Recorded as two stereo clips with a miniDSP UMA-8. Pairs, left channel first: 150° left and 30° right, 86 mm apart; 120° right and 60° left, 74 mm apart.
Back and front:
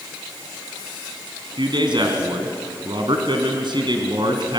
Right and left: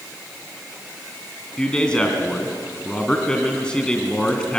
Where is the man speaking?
45° right, 2.5 m.